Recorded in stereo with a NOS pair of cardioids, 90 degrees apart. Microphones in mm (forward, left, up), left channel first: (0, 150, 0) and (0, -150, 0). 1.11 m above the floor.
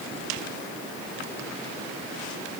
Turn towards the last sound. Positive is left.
No sound to turn to.